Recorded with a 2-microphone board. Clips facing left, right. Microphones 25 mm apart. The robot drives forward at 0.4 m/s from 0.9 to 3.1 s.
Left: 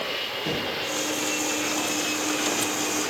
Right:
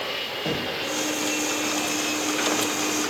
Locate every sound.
0.5 s knocking: 80° right, 5 m